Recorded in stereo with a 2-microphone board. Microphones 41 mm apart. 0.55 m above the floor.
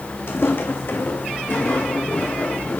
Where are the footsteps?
65° left (ahead or behind), 1.1 m; by 2.8 s 40° left (ahead or behind), 2.5 m.